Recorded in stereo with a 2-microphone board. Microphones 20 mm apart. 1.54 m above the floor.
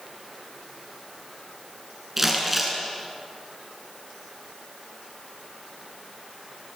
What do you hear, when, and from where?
2.2 s crumpling: 10° right (ahead or behind), 6.5 m